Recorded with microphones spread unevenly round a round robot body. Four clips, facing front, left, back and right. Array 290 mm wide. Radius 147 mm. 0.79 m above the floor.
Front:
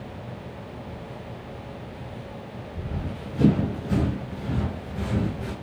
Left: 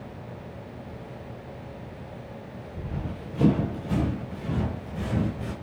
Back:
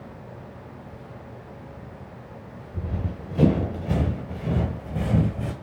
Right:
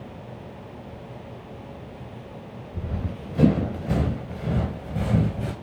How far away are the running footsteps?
About 4.5 m.